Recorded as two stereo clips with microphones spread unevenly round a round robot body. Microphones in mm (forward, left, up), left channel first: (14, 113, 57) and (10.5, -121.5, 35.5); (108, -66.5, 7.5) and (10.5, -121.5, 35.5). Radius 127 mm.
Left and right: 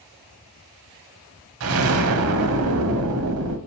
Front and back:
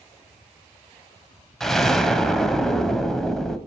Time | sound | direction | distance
1.6 | an explosion | 70° right | 0.8 m